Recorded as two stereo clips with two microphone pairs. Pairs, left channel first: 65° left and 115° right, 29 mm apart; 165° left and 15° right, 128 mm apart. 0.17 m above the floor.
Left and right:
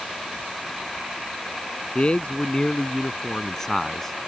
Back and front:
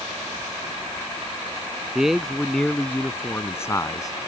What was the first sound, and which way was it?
A man speaking, 65° left.